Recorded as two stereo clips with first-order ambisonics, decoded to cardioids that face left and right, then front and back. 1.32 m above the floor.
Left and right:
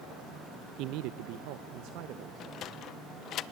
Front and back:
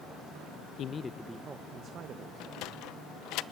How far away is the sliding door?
About 0.7 m.